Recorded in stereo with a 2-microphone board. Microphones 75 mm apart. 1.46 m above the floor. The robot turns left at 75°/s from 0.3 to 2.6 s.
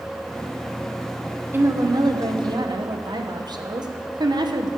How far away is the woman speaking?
About 1.2 m.